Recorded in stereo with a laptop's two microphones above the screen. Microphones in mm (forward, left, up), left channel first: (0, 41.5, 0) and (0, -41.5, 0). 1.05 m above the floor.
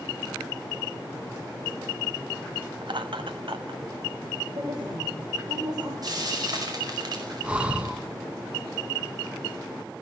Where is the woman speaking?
55° right (ahead or behind), 3.5 m.